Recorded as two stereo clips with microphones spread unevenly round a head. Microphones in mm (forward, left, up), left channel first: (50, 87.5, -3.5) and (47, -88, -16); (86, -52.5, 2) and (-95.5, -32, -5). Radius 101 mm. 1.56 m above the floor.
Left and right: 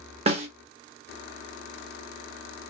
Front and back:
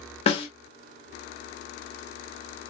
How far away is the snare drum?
About 1.4 m.